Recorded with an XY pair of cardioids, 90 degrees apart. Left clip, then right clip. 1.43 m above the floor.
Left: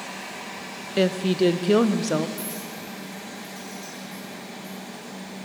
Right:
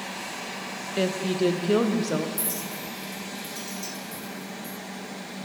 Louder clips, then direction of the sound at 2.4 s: Right 1 dB; 70° right.